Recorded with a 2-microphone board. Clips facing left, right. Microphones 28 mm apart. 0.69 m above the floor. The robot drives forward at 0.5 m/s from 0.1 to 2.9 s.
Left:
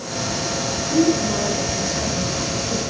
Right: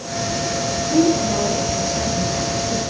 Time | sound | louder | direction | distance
0.9 | a woman speaking | right 1 dB | 70° right (ahead or behind) | 9 m